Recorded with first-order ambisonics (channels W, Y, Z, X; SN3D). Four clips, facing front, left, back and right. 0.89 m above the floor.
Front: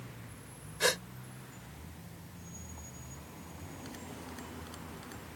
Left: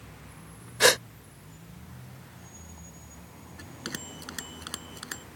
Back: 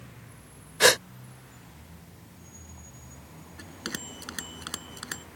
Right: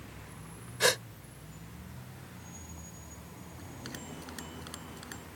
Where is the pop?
I don't hear a pop.